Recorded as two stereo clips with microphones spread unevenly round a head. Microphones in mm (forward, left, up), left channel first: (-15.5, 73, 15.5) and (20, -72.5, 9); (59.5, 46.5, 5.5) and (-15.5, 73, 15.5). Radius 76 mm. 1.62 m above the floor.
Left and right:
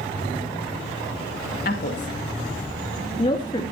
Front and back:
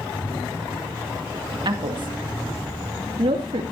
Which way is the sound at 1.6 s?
140° left.